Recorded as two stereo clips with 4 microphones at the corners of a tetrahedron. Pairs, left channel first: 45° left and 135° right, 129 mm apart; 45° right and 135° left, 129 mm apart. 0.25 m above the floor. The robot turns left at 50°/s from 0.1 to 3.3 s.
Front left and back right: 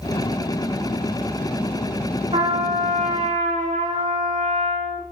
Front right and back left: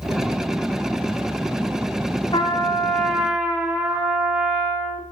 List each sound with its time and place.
2.3 s a trumpet: 95° right, 4 m; by 5.0 s 145° right, 4 m